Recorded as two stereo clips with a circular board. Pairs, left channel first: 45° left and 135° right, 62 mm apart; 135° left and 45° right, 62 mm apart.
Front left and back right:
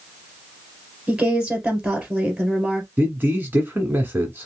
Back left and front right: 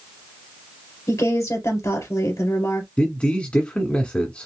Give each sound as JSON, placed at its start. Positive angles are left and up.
{"t": 1.1, "sound": "a woman speaking", "azimuth_deg": 150, "distance_m": 2.5}
{"t": 3.0, "sound": "a man speaking", "azimuth_deg": -170, "distance_m": 1.5}